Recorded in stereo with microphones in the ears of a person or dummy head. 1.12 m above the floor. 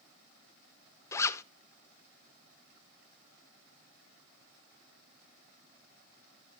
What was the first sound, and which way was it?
A zipper, 15° left (ahead or behind).